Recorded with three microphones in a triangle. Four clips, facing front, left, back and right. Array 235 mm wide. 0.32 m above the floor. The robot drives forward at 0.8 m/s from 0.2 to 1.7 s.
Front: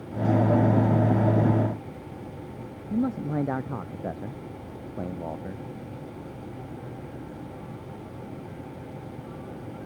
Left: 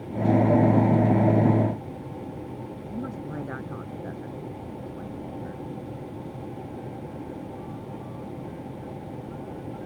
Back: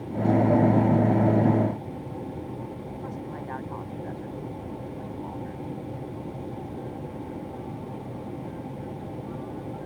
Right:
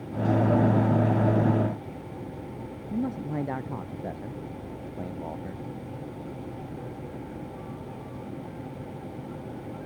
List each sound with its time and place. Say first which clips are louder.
2.9 s a man speaking: right 5 dB, front 8 dB; 15° right